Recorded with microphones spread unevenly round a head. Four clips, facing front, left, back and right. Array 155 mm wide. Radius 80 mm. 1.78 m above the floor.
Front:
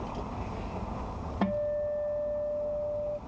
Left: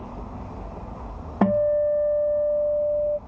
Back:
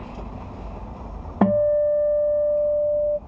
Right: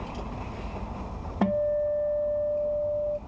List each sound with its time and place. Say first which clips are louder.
1.4 s a guitar: left 5 dB, back 12 dB; 150° left